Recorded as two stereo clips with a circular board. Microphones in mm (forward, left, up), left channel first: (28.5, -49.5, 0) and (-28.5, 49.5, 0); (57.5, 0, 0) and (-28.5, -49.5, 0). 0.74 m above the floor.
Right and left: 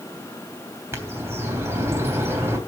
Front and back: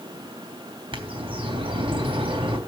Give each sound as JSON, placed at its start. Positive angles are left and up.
{"t": 0.9, "sound": "a bird", "azimuth_deg": -175, "distance_m": 3.0}